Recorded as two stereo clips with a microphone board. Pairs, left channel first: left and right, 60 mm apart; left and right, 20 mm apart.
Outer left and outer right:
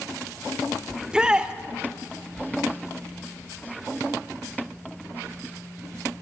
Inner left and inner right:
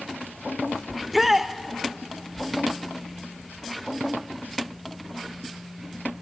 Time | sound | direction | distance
0.9 | a shout | 10° right (ahead or behind) | 1.1 m